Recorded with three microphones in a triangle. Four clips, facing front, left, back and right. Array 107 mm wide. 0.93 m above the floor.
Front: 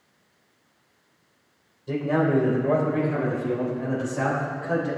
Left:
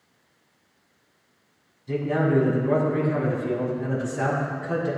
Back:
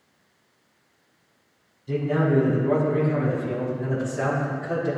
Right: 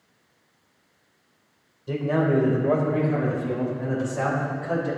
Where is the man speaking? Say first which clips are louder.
Even, even; 55° right, 3.5 m; by 4.9 s 65° right, 7 m.